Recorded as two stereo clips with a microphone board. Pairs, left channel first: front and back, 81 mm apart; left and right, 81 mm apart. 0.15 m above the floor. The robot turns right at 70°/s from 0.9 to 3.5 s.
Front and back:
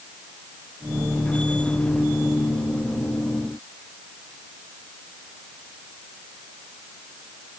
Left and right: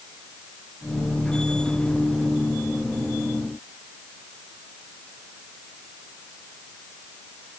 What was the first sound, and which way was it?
Only background noise.